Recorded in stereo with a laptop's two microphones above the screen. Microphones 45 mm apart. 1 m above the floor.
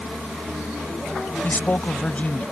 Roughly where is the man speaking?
Left.